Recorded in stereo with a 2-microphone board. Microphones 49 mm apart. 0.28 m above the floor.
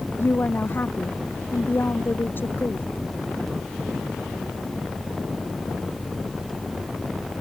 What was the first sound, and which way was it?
A woman speaking, 40° left (ahead or behind).